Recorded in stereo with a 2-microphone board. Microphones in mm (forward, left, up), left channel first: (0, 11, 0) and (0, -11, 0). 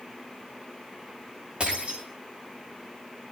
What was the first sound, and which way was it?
Breaking glass, 50° right (ahead or behind).